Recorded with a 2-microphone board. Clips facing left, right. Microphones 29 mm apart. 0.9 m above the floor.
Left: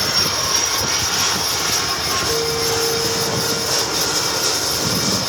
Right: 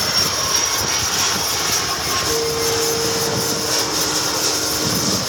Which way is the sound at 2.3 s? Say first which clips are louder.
Even; 45° right (ahead or behind).